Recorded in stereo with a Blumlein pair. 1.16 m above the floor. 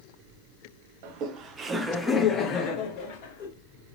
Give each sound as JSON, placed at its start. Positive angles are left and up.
{"t": 1.0, "sound": "laughter", "azimuth_deg": -45, "distance_m": 0.7}